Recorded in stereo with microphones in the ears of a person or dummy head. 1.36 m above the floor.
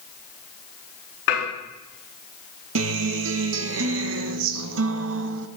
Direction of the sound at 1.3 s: 70° left (ahead or behind).